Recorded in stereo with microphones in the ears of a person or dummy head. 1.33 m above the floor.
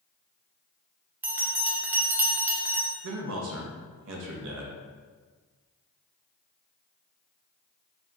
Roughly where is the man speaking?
Right.